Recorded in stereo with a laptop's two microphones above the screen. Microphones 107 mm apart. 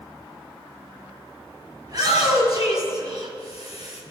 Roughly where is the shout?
Right.